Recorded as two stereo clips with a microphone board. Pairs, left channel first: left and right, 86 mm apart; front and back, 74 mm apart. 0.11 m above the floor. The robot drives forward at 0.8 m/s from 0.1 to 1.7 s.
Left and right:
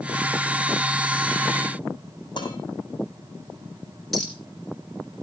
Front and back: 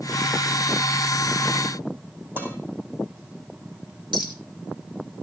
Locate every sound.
2.4 s dishes clattering: 120° left, 3 m
4.1 s a clink: 175° left, 4 m